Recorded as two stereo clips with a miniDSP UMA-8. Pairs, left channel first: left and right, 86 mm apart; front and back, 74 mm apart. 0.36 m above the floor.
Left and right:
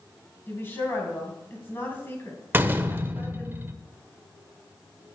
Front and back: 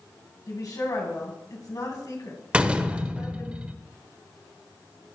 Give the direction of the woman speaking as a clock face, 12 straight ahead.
11 o'clock.